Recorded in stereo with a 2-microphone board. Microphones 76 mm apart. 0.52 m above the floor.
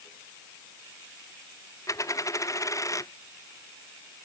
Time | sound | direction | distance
1.9 | a dropped coin | 45° left (ahead or behind) | ?